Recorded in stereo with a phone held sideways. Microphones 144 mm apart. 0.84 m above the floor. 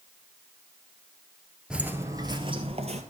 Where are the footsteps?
5° right (ahead or behind), 0.8 m; by 3.0 s 50° right (ahead or behind), 1.2 m.